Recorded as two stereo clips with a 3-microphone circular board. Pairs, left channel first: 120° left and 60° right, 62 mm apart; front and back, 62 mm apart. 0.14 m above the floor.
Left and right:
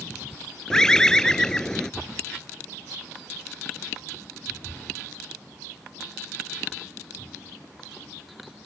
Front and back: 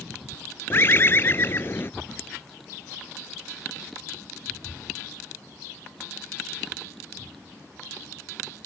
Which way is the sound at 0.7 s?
40° left.